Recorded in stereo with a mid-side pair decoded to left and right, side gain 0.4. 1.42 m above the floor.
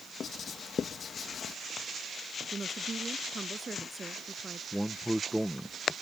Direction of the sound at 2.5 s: 30° right.